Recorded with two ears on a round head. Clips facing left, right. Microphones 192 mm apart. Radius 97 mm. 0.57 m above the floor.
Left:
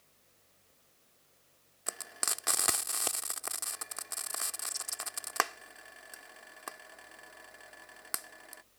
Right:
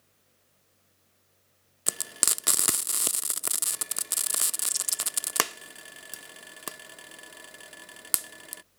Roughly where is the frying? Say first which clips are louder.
Right 5 dB; right.